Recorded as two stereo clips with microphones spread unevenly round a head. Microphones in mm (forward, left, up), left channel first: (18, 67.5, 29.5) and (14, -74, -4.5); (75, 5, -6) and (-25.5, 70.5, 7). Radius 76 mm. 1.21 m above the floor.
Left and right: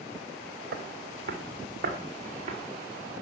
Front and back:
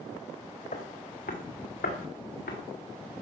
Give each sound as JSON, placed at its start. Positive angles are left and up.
{"t": 0.7, "sound": "footsteps", "azimuth_deg": -75, "distance_m": 2.5}